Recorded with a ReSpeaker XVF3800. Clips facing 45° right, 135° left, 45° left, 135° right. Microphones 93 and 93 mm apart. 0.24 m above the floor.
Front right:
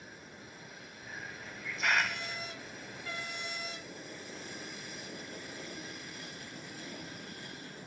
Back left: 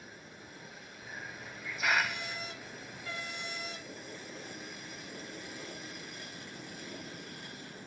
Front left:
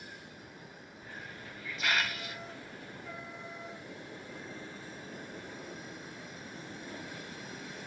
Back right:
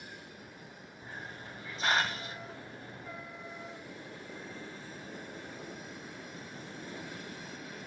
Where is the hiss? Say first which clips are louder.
Even, back right 2 dB; 145° right, 0.5 m.